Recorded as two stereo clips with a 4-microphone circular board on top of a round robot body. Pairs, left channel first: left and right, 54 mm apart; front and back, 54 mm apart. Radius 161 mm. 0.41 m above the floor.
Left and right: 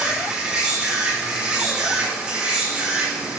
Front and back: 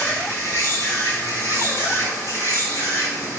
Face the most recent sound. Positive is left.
turn(degrees=-15)